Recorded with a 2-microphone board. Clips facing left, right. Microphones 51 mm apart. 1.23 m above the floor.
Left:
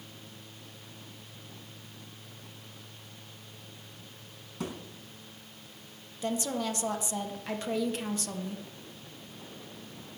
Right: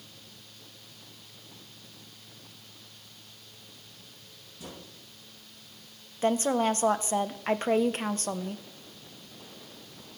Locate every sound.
4.6 s a thud: 75° left (ahead or behind), 5.5 m
6.2 s a woman speaking: 40° right (ahead or behind), 0.9 m